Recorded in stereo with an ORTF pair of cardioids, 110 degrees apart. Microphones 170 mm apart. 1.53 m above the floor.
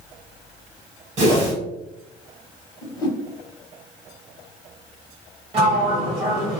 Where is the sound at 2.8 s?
25° left, 0.8 m.